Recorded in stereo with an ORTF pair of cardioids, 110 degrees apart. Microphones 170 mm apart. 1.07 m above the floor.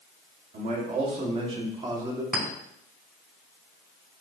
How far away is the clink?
About 5 m.